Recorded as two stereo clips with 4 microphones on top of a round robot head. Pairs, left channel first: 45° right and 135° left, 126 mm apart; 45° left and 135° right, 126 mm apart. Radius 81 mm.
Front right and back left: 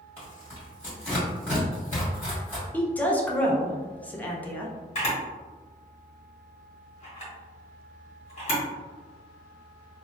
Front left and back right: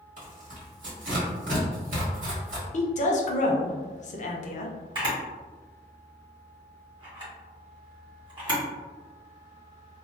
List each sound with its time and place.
0.2 s tearing paper: 125° right, 1.9 m
2.7 s a woman speaking: 35° left, 0.7 m
5.0 s a camera shutter: 85° right, 1.6 m